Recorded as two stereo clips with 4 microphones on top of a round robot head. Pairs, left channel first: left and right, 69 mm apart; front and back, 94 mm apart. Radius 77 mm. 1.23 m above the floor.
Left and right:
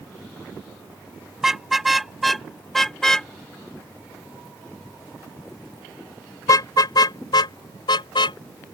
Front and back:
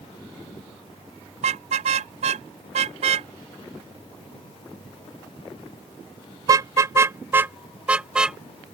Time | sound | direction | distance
1.4 | a car horn | 175° right | ?